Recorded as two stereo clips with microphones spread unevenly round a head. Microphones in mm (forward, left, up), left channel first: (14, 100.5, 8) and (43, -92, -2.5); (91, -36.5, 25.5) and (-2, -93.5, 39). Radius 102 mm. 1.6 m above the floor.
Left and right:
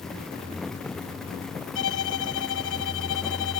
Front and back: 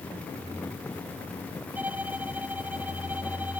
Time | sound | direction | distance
1.8 | a violin | 130° left | ?